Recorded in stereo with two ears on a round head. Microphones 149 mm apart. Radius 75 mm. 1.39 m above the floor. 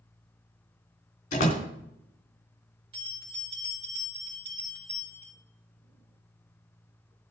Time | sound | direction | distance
1.3 | a door slam | 45° left (ahead or behind) | 3 m
2.9 | a bell | 35° right (ahead or behind) | 5 m